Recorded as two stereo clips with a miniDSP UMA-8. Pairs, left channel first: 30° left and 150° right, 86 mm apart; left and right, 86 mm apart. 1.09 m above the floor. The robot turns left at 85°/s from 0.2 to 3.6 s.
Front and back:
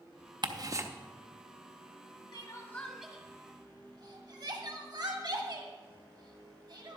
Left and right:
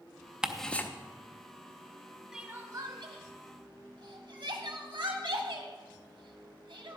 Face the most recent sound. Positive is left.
turn(degrees=-120)